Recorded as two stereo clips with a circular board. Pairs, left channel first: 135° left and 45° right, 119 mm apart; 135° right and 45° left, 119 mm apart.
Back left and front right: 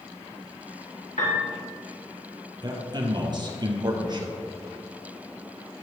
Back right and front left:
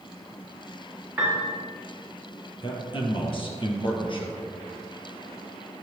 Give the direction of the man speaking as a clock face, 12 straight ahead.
3 o'clock.